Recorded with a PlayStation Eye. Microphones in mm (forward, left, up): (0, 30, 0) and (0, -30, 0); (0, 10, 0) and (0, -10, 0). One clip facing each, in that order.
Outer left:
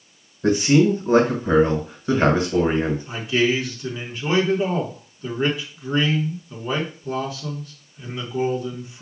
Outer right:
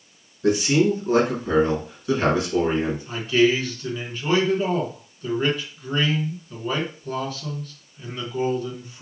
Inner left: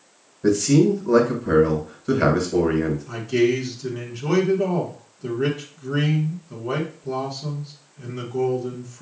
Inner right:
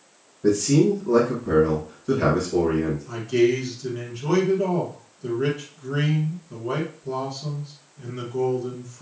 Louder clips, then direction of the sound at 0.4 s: Outer left 2 dB, inner left 1 dB; 30° left (ahead or behind).